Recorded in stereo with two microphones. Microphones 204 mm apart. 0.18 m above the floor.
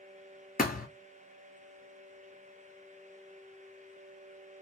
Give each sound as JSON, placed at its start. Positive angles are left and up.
{"t": 0.6, "sound": "a thud", "side_deg": 45, "distance_m": 0.5}